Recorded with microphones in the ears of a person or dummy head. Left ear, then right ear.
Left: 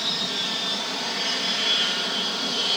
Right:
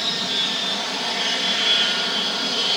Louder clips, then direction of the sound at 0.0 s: Right 3 dB; 20° right (ahead or behind).